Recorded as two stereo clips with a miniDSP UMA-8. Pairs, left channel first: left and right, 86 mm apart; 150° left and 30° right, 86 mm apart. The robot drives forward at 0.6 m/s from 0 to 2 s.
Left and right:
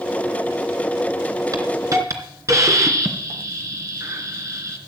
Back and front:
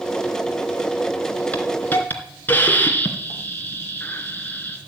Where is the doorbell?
I don't hear a doorbell.